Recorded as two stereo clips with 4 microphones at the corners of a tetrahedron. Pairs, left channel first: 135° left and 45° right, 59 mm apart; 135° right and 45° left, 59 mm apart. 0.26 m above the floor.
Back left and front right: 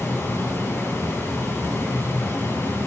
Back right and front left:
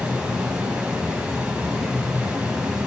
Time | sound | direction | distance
0.0 | running water | 115° left | 1.8 m